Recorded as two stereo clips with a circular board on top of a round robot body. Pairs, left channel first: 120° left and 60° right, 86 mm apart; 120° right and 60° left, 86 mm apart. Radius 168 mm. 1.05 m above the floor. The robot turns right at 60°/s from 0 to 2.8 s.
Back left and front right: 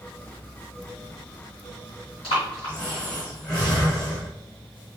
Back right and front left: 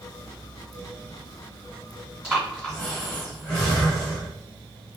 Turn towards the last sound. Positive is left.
turn(degrees=160)